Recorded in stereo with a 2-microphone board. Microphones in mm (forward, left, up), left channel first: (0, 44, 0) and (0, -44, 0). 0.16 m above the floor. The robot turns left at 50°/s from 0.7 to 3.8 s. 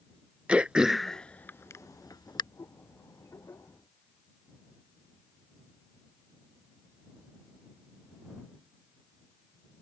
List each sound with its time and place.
0.5 s throat clearing: 10° right (ahead or behind); by 2.4 s 60° left (ahead or behind)